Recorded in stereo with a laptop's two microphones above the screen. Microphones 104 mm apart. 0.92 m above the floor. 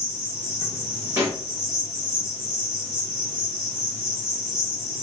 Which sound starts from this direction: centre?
An insect, at 0.0 s.